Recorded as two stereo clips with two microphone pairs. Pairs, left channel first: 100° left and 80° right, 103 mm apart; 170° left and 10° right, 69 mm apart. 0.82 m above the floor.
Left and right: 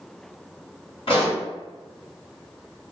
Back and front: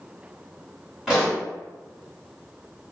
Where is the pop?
70° left, 1.5 m.